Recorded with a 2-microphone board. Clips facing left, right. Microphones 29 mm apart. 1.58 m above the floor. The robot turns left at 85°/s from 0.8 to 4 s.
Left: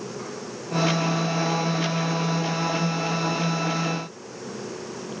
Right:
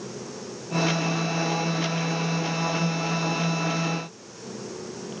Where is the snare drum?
No snare drum in this recording.